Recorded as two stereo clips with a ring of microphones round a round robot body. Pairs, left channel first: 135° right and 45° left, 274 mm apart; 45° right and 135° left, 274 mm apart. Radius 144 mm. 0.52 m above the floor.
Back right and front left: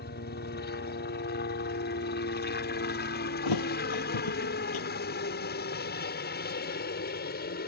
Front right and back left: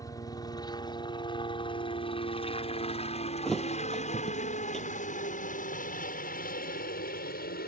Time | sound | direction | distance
0.0 | a helicopter | 115° right | ?
3.5 | a thud | 135° right | ?